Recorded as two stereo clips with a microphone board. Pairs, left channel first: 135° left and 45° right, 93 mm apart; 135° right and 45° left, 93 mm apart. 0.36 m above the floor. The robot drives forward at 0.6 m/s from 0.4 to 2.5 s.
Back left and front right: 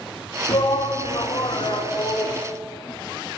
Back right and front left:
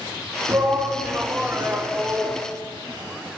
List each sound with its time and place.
0.5 s a shout: 105° left, 2.5 m; by 2.4 s 125° left, 3 m